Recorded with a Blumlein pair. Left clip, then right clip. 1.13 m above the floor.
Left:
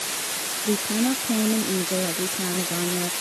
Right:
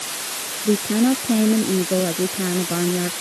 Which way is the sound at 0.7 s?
15° right.